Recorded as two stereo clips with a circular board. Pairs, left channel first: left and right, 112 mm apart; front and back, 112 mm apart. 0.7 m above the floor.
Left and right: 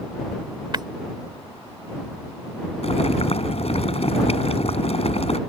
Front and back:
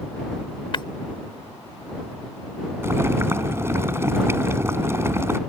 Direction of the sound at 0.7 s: 45° right.